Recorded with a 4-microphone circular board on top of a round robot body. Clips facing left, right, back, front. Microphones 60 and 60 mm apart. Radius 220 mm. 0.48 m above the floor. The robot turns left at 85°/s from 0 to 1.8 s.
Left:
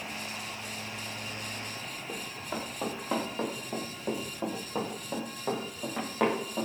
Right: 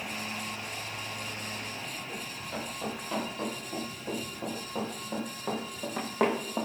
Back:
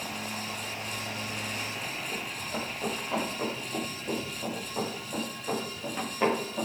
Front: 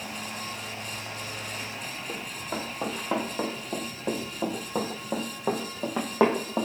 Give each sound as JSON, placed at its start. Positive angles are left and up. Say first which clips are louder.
{"t": 2.1, "sound": "running footsteps", "louder": "left 1 dB, front 1 dB", "azimuth_deg": 35, "distance_m": 5.0}